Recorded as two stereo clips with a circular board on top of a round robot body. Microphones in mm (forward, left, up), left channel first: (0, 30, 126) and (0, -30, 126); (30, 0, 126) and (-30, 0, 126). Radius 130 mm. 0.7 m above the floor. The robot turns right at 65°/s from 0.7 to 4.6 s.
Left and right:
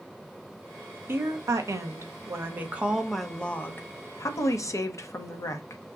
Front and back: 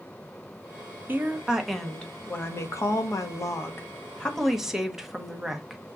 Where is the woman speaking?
130° right, 1.0 m; by 5.8 s 100° left, 1.0 m.